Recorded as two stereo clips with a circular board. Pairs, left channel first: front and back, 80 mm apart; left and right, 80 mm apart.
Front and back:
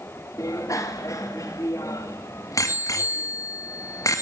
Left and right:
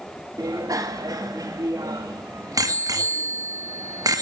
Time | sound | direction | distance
0.4 | a bicycle bell | 50° right | 2 m